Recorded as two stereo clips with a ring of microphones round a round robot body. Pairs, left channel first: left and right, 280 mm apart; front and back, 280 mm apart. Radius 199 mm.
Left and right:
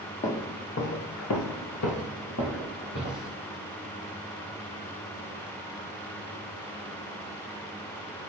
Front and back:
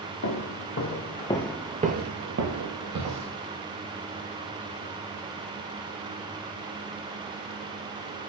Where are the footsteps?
25° left, 0.9 m; by 3.4 s 160° left, 1.2 m.